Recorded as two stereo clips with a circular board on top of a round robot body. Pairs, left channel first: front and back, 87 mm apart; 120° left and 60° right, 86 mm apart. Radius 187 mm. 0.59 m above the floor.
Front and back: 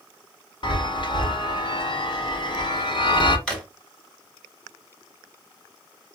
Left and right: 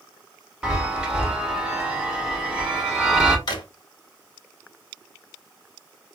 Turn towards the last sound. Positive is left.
turn(degrees=85)